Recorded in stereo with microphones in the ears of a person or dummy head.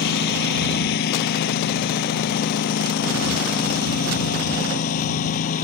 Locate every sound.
0.0 s a lawn mower: 65° left (ahead or behind); by 5.7 s 45° left (ahead or behind)